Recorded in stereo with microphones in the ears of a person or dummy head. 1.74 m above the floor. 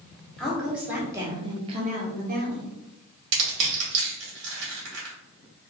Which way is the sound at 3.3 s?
70° right (ahead or behind).